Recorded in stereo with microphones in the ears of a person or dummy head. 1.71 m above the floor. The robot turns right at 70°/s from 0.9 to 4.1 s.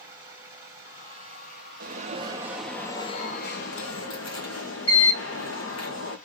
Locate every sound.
0.0 s running water: 170° right, 3 m; by 6.3 s 55° left, 3 m
1.8 s an alarm: 60° right, 1.5 m; by 6.2 s 100° left, 1.5 m